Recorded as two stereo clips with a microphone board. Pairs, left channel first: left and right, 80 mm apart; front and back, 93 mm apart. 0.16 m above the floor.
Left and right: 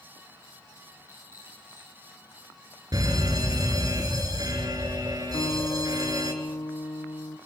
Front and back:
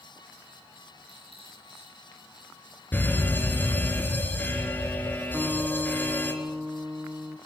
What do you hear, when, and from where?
1.1 s a rattle: 150° right, 10 m
2.9 s a fire alarm: 65° right, 3.5 m
5.3 s a guitar: 105° left, 3 m